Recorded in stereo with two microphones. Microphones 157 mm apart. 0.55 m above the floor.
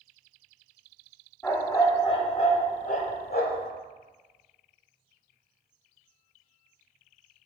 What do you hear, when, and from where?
1.4 s a dog barking: 15° left (ahead or behind), 1.4 m; by 3.7 s 85° left, 1.6 m